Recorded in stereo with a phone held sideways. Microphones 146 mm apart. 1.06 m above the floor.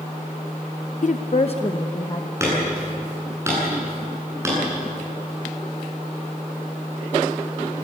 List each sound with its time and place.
1.0 s a woman speaking: 55° left (ahead or behind), 0.5 m; by 2.3 s 30° left (ahead or behind), 1.4 m
2.4 s hammering: 20° right (ahead or behind), 9.5 m